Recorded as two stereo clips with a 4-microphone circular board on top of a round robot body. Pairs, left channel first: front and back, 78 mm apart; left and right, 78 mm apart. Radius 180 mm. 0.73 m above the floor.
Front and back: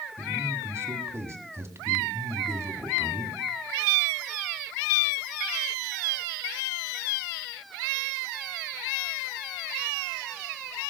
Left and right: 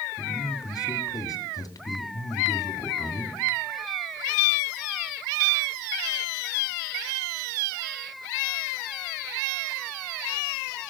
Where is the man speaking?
130° left, 2 m.